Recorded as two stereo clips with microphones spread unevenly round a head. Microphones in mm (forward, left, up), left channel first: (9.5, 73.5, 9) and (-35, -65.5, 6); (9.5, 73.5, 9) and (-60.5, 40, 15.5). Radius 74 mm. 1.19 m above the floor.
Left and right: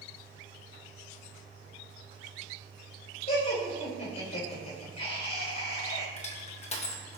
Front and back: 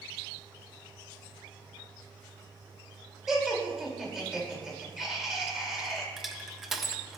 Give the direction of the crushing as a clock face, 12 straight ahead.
8 o'clock.